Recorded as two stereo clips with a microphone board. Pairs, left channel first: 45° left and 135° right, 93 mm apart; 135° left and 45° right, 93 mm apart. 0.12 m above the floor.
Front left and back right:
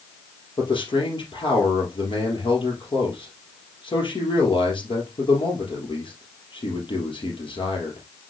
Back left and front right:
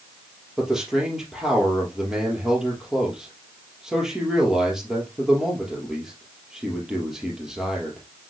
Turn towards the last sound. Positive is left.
turn(degrees=40)